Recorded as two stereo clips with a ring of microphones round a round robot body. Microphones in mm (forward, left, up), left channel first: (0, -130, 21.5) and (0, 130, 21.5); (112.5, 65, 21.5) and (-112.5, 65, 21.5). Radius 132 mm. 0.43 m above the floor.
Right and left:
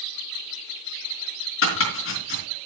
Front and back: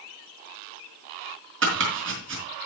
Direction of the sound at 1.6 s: 135° right.